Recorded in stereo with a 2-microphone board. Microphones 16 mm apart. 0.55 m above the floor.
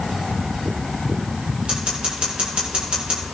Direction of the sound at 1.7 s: 85° right.